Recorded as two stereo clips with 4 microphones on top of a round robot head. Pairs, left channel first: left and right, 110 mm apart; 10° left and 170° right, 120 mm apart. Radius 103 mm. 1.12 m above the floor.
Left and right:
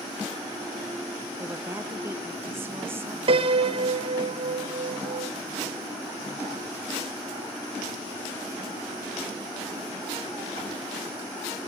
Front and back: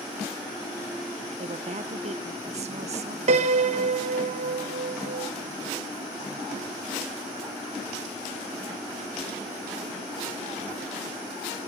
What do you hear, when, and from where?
1.4 s a woman speaking: 160° right, 1.0 m
3.3 s a piano: 135° right, 0.9 m